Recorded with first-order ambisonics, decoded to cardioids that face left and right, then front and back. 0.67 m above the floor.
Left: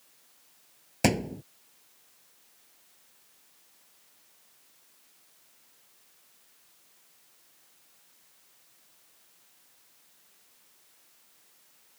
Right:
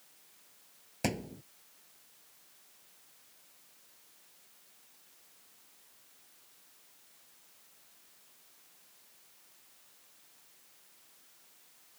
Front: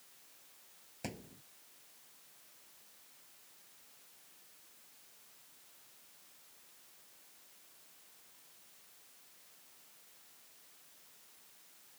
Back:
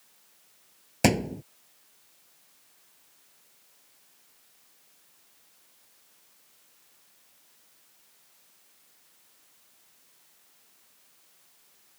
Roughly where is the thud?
Behind left.